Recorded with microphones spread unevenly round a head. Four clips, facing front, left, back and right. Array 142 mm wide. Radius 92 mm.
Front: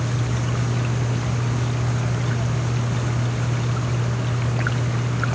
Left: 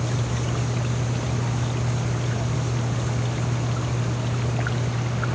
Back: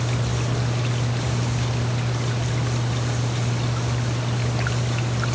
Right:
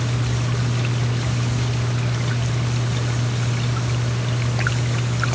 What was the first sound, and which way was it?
Only background noise.